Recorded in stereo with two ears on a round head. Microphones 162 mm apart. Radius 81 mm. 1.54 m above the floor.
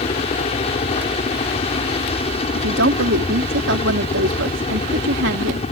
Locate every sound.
0.0 s a helicopter: 35° left (ahead or behind)
2.5 s a woman speaking: 75° right (ahead or behind)